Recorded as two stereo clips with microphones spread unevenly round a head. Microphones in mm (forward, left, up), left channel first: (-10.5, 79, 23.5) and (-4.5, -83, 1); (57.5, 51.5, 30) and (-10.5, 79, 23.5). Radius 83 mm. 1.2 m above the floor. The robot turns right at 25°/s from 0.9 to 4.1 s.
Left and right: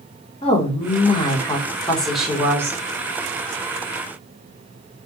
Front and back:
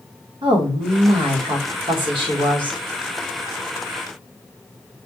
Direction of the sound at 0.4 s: 150° left.